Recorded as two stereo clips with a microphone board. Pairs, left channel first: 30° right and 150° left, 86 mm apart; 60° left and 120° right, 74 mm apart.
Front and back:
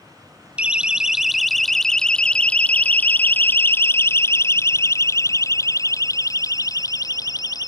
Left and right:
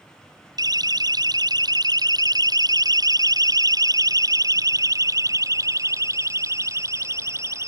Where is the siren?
135° right; by 7.7 s 70° right.